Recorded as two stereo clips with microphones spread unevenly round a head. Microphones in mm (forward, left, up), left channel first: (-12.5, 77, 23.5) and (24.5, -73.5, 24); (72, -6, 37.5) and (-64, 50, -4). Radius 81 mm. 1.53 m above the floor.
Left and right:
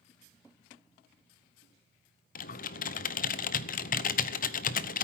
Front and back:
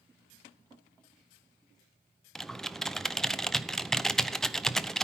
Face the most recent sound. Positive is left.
turn(degrees=70)